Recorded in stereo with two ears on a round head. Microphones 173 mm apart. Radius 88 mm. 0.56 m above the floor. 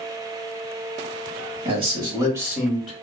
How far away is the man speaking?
About 1.2 m.